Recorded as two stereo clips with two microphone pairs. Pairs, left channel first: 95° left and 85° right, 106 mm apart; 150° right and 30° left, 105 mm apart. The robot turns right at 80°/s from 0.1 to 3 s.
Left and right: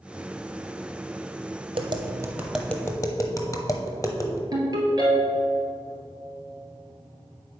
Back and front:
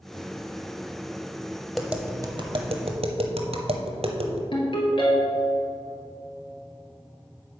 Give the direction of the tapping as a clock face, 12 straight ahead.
2 o'clock.